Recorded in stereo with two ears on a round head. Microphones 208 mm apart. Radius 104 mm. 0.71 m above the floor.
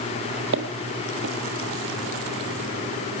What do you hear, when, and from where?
0.5 s footsteps: 60° right (ahead or behind), 1.5 m